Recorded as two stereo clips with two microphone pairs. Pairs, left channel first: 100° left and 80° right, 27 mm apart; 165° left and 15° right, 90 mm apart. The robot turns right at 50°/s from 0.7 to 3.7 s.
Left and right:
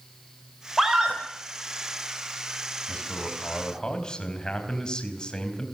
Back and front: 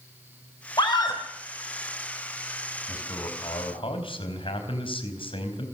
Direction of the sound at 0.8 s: 170° right.